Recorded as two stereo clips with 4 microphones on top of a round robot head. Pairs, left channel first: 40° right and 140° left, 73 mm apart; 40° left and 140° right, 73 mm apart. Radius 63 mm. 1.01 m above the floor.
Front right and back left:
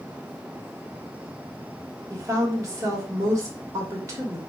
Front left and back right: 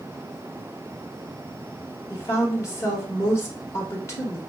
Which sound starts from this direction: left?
A woman speaking, at 2.1 s.